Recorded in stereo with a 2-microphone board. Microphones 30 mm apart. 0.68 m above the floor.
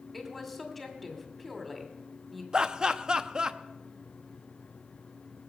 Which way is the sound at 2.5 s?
25° right (ahead or behind).